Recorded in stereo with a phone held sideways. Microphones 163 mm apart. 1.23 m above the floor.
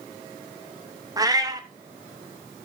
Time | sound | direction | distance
1.2 | a cat meowing | 20° right (ahead or behind) | 0.6 m